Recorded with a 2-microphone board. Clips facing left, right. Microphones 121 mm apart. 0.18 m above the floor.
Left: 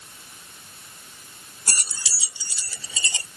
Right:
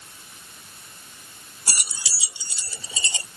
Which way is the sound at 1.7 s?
10° right (ahead or behind).